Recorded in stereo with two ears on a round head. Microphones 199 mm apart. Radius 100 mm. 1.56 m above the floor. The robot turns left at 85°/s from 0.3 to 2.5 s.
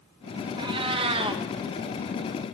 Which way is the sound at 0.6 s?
20° right (ahead or behind).